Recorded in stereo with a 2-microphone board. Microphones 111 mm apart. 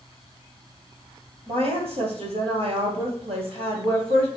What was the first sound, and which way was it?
A woman speaking, 60° right (ahead or behind).